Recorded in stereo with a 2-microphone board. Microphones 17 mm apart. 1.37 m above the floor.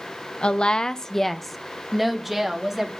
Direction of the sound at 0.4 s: 80° left.